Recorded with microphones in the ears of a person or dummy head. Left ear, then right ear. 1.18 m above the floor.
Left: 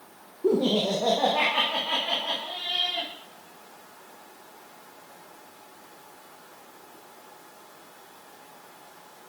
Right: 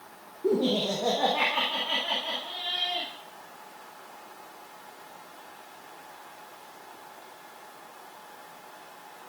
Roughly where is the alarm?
I don't hear an alarm.